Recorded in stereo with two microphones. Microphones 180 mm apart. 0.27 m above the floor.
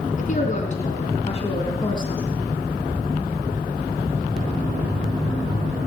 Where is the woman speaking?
45° left (ahead or behind), 3 m; by 2.2 s 25° left (ahead or behind), 3 m.